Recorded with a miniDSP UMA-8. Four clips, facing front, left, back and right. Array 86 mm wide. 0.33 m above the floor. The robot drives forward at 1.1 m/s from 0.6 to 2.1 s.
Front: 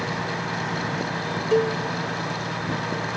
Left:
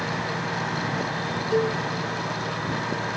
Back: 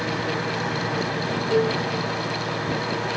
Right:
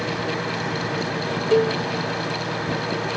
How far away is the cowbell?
About 2.5 m.